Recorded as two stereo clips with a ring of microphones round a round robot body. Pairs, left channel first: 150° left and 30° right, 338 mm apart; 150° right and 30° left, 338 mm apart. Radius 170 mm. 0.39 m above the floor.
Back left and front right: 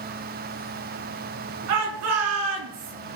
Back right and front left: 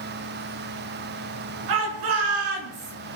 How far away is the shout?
About 5 m.